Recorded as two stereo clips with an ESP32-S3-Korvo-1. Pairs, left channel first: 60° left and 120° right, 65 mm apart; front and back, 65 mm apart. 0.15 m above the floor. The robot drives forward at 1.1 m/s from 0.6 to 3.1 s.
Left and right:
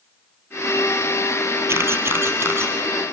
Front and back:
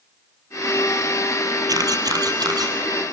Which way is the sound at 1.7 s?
165° right.